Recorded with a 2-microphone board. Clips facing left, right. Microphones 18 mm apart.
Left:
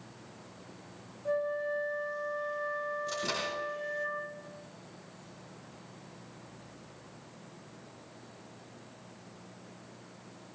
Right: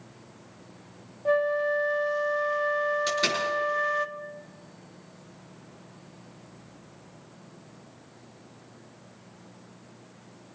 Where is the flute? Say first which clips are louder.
Right 8 dB; 40° right (ahead or behind), 1.3 m.